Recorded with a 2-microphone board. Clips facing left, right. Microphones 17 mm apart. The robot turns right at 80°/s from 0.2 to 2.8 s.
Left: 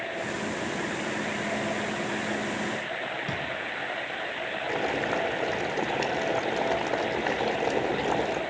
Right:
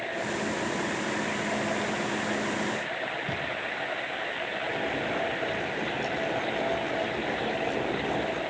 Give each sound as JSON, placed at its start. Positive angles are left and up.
{"t": 3.3, "sound": "a drawer", "side_deg": 60, "distance_m": 7.0}
{"t": 4.7, "sound": "boiling", "side_deg": 65, "distance_m": 4.0}